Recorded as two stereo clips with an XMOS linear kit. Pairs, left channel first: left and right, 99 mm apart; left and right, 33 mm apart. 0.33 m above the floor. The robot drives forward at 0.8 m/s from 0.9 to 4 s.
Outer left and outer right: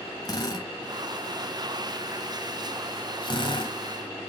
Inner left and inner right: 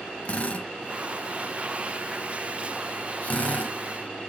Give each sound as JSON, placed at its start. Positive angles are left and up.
{"t": 0.2, "sound": "a drill", "side_deg": 40, "distance_m": 2.0}